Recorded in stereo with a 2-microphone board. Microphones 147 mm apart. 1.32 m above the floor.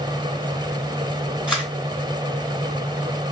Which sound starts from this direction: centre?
A camera shutter, at 1.5 s.